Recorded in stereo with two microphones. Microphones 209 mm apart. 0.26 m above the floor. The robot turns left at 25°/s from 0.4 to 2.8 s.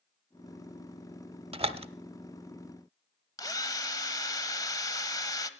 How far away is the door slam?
About 0.7 m.